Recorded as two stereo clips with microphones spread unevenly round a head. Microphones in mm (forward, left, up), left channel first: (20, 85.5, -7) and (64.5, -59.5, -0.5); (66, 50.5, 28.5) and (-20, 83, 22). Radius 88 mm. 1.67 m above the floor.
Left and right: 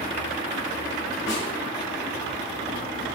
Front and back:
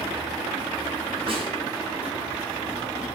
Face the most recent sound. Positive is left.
turn(degrees=130)